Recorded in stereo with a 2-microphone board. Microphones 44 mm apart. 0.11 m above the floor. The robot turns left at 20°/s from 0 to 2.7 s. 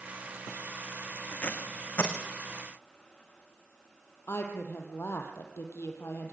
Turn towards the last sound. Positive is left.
turn(degrees=65)  # may be behind; listen again after turning